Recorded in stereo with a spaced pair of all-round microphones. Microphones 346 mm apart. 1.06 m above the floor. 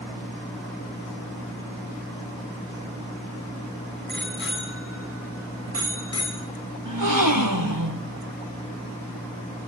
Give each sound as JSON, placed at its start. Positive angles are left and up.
{"t": 4.1, "sound": "a bicycle bell", "side_deg": 35, "distance_m": 8.5}
{"t": 6.8, "sound": "a gasp", "side_deg": -70, "distance_m": 3.0}